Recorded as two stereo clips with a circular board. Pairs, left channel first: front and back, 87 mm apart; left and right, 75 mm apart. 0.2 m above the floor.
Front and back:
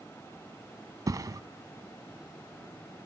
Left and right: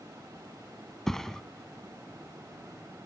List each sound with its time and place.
1.1 s a thud: 170° left, 0.7 m